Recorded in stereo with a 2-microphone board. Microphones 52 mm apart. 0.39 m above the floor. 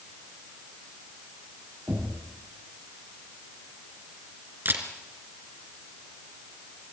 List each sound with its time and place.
1.9 s knocking: 55° right (ahead or behind), 9.5 m
4.7 s a camera shutter: 50° right (ahead or behind), 3 m